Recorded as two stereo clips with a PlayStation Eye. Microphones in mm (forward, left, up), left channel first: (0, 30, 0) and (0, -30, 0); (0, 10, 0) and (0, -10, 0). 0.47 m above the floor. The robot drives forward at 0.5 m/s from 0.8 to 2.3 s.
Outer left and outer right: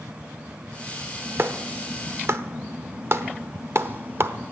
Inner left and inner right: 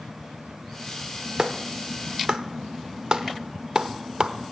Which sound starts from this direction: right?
A clap, at 1.4 s.